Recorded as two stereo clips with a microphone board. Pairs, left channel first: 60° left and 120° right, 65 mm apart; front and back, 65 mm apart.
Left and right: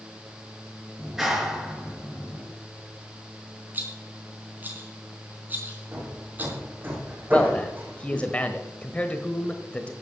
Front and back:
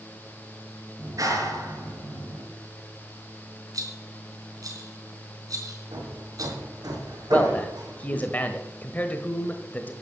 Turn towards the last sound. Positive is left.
turn(degrees=20)